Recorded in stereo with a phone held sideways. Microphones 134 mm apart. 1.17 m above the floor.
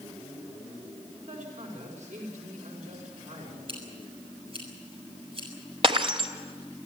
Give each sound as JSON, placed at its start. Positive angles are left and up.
{"t": 1.3, "sound": "a man speaking", "side_deg": -65, "distance_m": 5.5}
{"t": 3.7, "sound": "scissors", "side_deg": -45, "distance_m": 7.0}
{"t": 5.8, "sound": "breaking glass", "side_deg": -40, "distance_m": 1.8}